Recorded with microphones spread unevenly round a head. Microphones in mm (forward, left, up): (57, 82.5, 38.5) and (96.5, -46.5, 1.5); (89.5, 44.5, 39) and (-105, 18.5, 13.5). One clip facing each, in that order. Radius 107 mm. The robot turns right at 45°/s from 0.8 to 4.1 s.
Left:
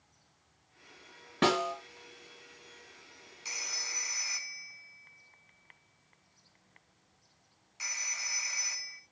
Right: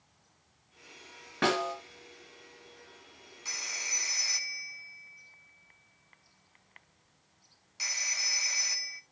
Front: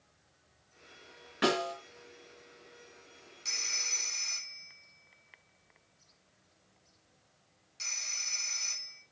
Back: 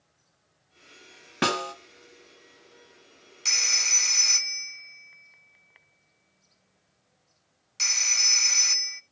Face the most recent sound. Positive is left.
turn(degrees=-145)